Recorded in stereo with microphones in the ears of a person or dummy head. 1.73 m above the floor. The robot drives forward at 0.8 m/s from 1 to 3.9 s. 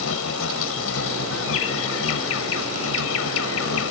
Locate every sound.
0.0 s an insect: 80° left; by 3.9 s 85° left